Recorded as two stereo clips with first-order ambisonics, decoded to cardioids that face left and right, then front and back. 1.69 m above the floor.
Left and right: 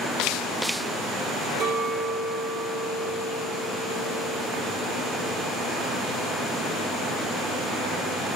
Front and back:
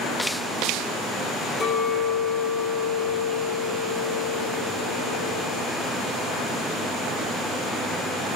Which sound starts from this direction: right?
A clink, at 1.6 s.